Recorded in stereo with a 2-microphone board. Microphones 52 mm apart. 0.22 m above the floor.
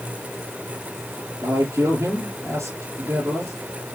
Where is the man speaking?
65° right (ahead or behind), 4.5 m.